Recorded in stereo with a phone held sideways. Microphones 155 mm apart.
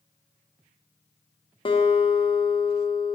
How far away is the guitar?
About 0.9 m.